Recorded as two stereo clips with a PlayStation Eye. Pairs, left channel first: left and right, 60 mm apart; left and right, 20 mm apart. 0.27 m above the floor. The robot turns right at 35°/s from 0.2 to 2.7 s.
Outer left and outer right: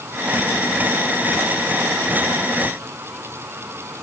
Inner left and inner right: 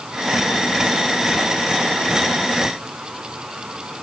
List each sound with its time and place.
Only background noise.